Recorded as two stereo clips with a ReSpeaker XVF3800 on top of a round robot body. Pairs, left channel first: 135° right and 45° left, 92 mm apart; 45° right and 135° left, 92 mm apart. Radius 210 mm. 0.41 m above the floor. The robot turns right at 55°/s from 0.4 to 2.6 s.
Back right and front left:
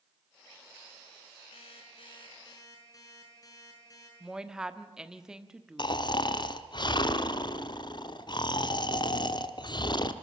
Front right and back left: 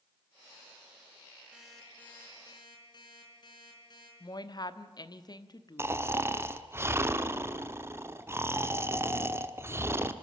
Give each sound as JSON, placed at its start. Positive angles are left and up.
{"t": 1.5, "sound": "an alarm clock", "azimuth_deg": -145, "distance_m": 5.0}
{"t": 4.2, "sound": "a woman speaking", "azimuth_deg": -35, "distance_m": 1.4}
{"t": 5.8, "sound": "snoring", "azimuth_deg": -165, "distance_m": 1.2}